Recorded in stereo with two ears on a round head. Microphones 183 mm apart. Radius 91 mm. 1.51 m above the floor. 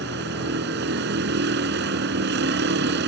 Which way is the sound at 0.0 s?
55° right (ahead or behind).